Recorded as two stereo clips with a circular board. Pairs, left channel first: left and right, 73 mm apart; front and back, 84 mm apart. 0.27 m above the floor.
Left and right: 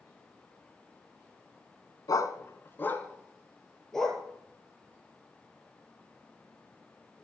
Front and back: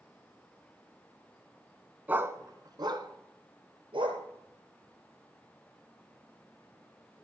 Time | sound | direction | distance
2.1 | a dog barking | 110° left | 0.9 m